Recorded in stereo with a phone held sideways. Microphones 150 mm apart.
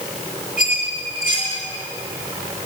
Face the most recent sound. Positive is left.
turn(degrees=60)  # may be behind; listen again after turning